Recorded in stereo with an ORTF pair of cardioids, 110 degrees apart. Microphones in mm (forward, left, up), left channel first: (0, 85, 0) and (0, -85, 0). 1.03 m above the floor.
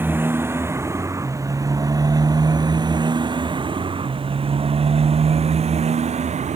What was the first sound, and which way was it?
A motorcycle, 10° right.